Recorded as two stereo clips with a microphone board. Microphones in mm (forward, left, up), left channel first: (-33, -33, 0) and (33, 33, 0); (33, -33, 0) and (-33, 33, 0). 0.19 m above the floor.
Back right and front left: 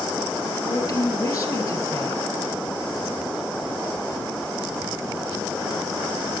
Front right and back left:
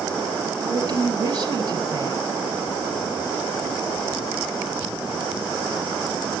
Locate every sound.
0.6 s a woman speaking: straight behind, 3 m